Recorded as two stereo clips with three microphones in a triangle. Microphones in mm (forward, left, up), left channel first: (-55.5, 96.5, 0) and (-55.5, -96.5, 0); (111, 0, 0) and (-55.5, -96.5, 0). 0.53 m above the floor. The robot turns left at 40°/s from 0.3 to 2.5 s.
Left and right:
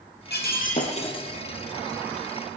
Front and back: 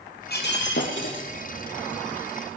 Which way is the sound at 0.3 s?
60° left.